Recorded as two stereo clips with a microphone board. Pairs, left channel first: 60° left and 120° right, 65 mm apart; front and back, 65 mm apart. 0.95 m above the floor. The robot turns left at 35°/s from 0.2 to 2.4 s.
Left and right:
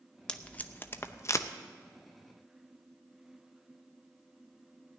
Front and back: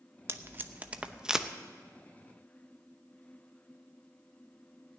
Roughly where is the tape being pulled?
Behind left.